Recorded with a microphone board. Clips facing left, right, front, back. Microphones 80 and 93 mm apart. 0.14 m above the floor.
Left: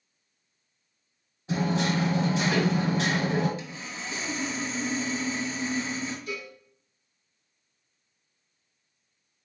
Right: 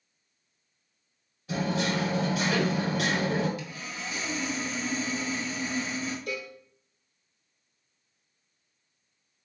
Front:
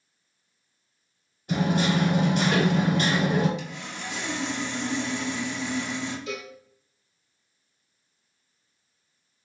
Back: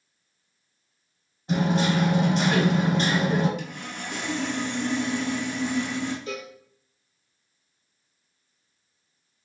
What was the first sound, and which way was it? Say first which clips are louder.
Hammering: left 2 dB, back 1 dB; 135° left.